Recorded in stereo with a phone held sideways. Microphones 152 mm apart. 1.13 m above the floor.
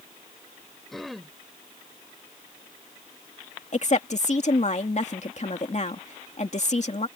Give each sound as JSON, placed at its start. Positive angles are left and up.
{"t": 0.9, "sound": "throat clearing", "side_deg": 0}
{"t": 3.7, "sound": "a woman speaking", "side_deg": 50}